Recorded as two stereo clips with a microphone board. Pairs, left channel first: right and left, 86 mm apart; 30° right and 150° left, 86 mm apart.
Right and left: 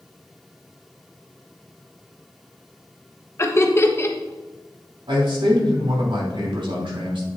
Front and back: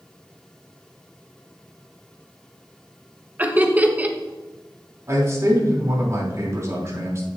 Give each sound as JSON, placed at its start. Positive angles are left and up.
{"t": 3.4, "sound": "laughter", "azimuth_deg": -140, "distance_m": 1.1}
{"t": 5.1, "sound": "a man speaking", "azimuth_deg": 95, "distance_m": 3.0}